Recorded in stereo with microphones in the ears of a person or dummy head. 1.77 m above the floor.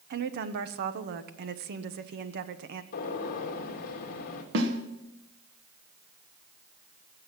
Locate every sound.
0.1 s a woman speaking: 50° right (ahead or behind), 1.0 m
2.9 s a gunshot: 50° left (ahead or behind), 1.9 m
4.5 s a snare drum: 70° right (ahead or behind), 1.6 m